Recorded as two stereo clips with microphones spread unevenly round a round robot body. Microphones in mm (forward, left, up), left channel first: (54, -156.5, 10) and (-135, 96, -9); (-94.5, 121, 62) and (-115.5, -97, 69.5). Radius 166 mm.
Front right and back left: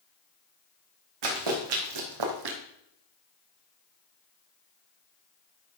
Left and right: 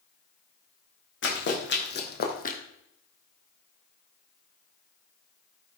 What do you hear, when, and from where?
1.2 s running footsteps: 120° left, 3 m; by 2.6 s 140° left, 1.6 m